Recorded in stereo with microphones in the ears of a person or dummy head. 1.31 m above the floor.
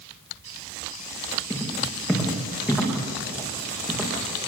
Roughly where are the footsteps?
Centre.